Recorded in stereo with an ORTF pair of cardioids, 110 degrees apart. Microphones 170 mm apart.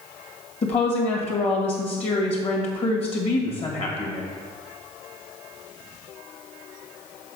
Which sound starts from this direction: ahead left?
A woman speaking, at 0.6 s.